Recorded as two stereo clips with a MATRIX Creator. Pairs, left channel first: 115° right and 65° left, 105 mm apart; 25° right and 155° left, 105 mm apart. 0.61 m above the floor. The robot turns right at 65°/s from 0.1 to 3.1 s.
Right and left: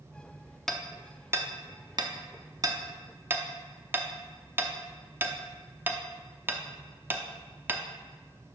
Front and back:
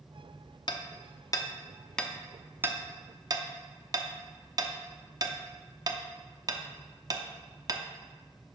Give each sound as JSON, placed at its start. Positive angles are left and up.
{"t": 0.7, "sound": "hammering", "azimuth_deg": -30, "distance_m": 0.6}